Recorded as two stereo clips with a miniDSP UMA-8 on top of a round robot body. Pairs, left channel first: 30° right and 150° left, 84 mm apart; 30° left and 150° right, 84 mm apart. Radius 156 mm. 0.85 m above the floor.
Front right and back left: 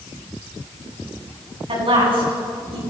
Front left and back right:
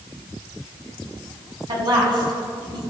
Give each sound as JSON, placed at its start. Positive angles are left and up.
{"t": 1.7, "sound": "a woman speaking", "azimuth_deg": 170, "distance_m": 8.5}